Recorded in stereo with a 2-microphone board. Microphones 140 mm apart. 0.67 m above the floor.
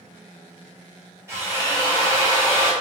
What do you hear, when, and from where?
1.3 s a drill: 20° right (ahead or behind), 1.2 m